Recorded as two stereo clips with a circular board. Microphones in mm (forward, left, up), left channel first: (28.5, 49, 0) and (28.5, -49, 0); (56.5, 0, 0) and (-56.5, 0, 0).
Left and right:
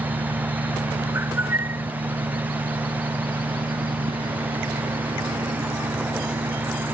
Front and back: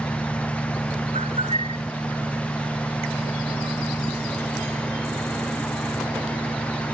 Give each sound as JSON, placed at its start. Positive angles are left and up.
{"t": 0.0, "sound": "an engine running", "azimuth_deg": -80}
{"t": 1.1, "sound": "a bird", "azimuth_deg": -155}